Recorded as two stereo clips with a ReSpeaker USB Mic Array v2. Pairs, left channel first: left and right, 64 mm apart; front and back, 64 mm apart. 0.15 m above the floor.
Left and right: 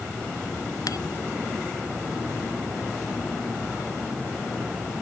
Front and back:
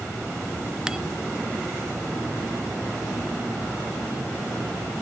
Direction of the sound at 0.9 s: 100° left.